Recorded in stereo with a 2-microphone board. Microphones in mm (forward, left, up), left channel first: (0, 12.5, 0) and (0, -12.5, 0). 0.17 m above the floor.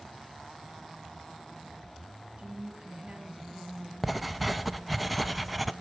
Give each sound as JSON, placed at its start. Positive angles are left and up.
{"t": 2.4, "sound": "a woman speaking", "side_deg": -50, "distance_m": 2.5}
{"t": 4.0, "sound": "writing", "side_deg": -5, "distance_m": 0.5}